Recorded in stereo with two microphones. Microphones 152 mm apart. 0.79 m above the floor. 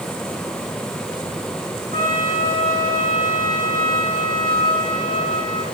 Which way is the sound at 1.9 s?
80° right.